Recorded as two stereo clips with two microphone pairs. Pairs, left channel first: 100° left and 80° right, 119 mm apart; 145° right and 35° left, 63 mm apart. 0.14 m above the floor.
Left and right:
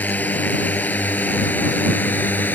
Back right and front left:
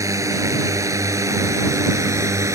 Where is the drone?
25° left; by 2.6 s 30° left.